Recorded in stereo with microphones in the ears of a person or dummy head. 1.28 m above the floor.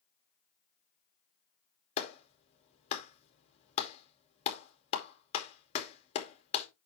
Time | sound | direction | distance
2.0 | a clap | 25° left (ahead or behind) | 2.5 m